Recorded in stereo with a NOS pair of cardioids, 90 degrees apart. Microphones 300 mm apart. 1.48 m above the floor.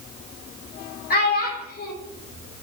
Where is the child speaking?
30° left, 3 m.